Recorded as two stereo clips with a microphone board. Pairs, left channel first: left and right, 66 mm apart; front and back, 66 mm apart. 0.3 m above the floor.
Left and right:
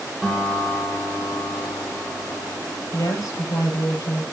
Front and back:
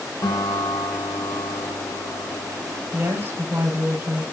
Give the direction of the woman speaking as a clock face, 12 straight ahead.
8 o'clock.